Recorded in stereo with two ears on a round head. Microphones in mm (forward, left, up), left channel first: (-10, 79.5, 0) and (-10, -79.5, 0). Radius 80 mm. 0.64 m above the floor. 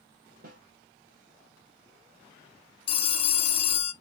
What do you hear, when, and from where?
0.4 s a snare drum: 50° right (ahead or behind), 2 m
2.9 s a phone ringing: 30° left (ahead or behind), 1.0 m